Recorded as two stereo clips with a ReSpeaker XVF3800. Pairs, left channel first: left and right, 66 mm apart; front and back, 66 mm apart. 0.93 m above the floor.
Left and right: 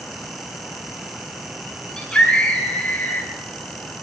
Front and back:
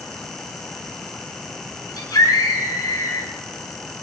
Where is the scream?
15° left, 7.5 m; by 3.3 s 25° left, 6.5 m.